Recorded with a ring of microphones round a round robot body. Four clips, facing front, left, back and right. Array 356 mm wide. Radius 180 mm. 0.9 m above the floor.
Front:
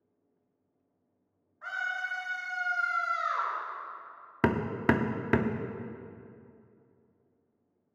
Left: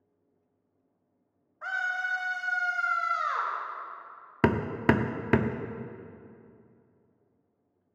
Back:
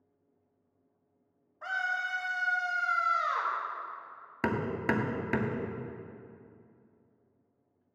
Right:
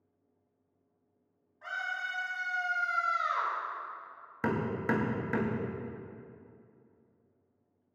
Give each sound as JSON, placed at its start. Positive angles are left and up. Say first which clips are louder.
{"t": 1.6, "sound": "a scream", "louder": "left 5 dB, back 2 dB", "azimuth_deg": 135, "distance_m": 5.0}
{"t": 4.4, "sound": "hammering", "louder": "left 6 dB, front 4 dB", "azimuth_deg": 65, "distance_m": 0.8}